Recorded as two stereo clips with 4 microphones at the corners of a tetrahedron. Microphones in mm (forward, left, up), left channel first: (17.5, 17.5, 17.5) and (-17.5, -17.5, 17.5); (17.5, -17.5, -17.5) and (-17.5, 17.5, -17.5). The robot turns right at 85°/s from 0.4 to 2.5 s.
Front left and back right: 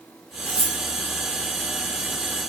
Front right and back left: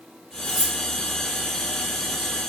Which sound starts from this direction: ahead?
Cutlery clinking, at 0.5 s.